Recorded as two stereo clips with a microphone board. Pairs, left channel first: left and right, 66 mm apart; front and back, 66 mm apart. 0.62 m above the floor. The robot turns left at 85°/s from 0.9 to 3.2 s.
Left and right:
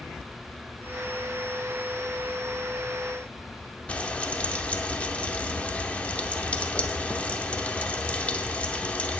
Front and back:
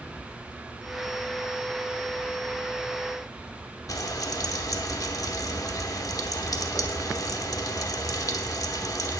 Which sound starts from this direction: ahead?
Frying, at 3.9 s.